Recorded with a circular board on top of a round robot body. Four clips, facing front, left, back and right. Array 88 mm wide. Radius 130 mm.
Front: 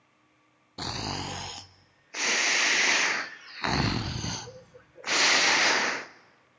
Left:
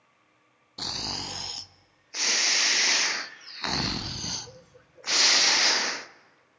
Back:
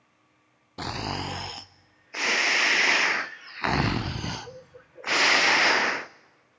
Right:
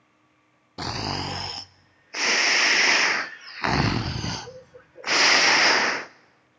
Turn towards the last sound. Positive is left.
turn(degrees=-115)